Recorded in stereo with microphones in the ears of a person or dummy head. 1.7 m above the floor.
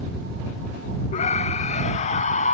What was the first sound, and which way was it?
A scream, 30° left (ahead or behind).